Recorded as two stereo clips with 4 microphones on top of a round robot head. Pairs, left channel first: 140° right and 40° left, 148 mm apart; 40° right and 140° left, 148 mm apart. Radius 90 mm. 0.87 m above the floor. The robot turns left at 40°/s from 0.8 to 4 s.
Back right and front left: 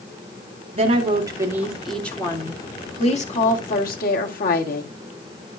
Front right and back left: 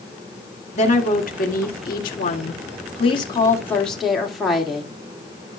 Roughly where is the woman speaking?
Ahead.